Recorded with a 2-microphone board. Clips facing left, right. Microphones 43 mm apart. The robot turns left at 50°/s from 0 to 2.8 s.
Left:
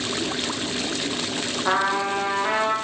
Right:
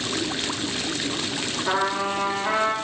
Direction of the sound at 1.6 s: 100° left.